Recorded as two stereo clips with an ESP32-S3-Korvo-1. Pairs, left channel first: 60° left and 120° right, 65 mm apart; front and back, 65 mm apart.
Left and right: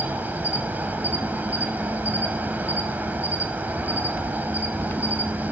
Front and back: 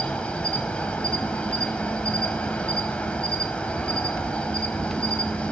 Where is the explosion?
No explosion in this recording.